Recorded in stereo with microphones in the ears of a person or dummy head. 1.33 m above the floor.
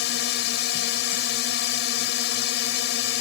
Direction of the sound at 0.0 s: 70° left (ahead or behind).